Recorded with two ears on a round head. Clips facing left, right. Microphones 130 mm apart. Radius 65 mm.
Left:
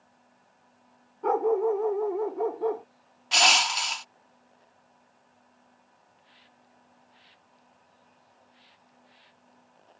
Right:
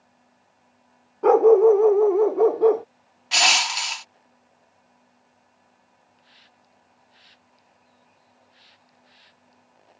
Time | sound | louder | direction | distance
1.2 | a dog barking | right 11 dB | 70° right (ahead or behind) | ?
3.3 | crushing | right 1 dB | centre (ahead or behind) | ?
6.2 | a hiss | right 1 dB | 50° right (ahead or behind) | ?